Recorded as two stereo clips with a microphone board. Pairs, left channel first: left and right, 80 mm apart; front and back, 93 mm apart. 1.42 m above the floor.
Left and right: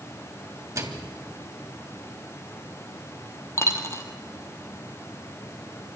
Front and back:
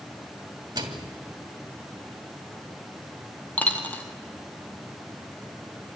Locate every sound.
0.8 s a microwave: 140° right, 2.5 m
3.6 s a dropped coin: 60° left, 1.7 m